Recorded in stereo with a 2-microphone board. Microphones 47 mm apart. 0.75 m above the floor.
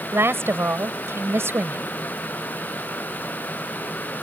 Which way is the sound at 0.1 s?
60° right (ahead or behind).